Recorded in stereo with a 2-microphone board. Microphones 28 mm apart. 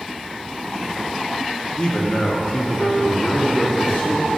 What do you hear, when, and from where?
1.8 s a man speaking: 30° left (ahead or behind), 1.0 m; by 4.4 s 60° left (ahead or behind), 1.2 m